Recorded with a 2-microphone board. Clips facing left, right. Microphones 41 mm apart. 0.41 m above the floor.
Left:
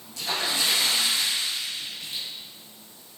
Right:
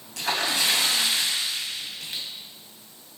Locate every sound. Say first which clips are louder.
0.2 s a splash: right 2 dB; 75° right (ahead or behind), 0.5 m